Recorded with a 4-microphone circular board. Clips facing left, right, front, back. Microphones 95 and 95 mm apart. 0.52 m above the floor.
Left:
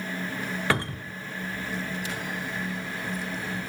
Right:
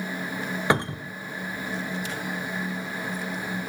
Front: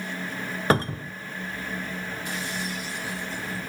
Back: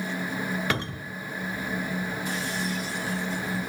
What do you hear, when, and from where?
0.7 s a cupboard door: 30° right, 0.8 m